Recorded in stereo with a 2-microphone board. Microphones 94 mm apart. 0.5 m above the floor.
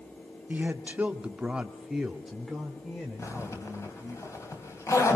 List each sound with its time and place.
0.5 s a man speaking: 15° right (ahead or behind), 1.3 m; by 4.2 s 5° left (ahead or behind), 3 m
3.2 s a zipper: 30° left (ahead or behind), 3.5 m